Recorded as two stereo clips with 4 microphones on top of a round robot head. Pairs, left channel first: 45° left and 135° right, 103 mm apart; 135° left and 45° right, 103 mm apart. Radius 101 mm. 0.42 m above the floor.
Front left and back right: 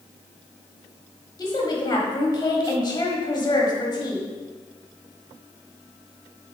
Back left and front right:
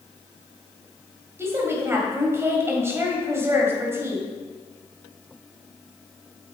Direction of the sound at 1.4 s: 5° left.